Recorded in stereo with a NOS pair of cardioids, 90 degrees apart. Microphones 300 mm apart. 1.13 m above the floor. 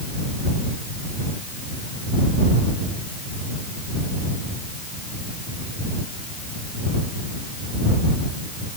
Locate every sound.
Only background noise.